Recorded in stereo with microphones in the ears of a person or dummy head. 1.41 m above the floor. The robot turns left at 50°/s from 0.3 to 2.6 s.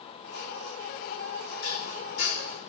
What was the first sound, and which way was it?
Dishes clattering, 80° left.